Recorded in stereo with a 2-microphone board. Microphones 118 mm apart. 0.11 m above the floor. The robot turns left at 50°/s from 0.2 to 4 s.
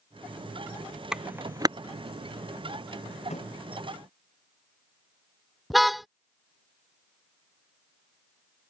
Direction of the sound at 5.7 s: Centre (ahead or behind).